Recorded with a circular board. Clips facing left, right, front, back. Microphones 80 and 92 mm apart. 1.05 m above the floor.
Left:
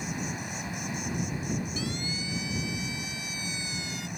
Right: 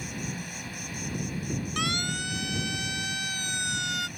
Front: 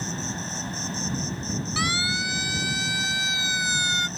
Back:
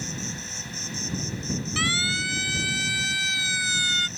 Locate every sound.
0.0 s an insect: 30° left
1.8 s a siren: 75° right; by 4.1 s 70° right